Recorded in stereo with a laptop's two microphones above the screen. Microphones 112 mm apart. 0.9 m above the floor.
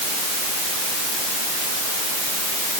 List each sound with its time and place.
Only background noise.